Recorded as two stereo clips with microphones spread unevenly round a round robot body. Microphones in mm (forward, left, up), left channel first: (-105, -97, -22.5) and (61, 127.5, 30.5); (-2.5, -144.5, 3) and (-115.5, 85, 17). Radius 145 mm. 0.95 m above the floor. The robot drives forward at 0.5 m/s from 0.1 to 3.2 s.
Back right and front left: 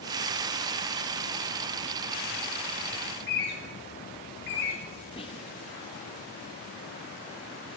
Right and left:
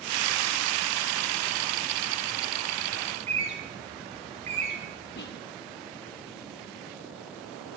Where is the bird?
Straight behind, 5.5 m.